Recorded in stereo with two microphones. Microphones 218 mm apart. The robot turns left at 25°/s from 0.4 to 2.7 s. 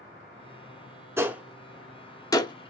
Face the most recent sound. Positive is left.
turn(degrees=25)  # may be behind; listen again after turning